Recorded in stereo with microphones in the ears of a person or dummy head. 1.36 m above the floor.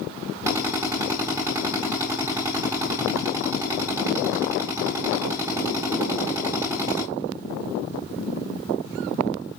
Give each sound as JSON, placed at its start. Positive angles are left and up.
{"t": 0.5, "sound": "a drill", "side_deg": -15, "distance_m": 4.5}